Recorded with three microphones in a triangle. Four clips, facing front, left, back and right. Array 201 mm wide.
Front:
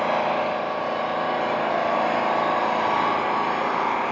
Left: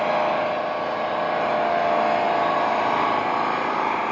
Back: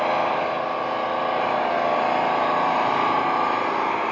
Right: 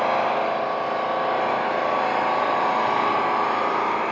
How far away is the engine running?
About 2.0 m.